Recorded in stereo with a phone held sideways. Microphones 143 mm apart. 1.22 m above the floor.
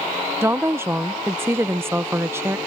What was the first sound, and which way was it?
A woman speaking, 15° right (ahead or behind).